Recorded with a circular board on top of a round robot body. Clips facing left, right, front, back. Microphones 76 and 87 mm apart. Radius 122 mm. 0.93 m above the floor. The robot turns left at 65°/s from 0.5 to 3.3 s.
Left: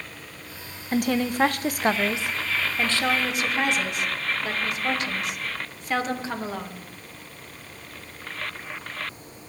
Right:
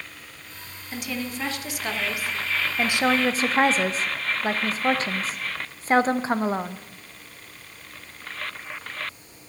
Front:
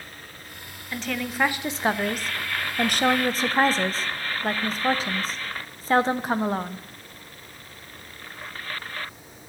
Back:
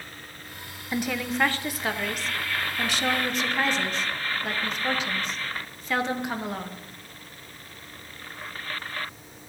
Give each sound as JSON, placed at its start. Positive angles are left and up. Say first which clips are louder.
{"t": 0.9, "sound": "a woman speaking", "louder": "left 8 dB, back 2 dB", "azimuth_deg": 115, "distance_m": 0.6}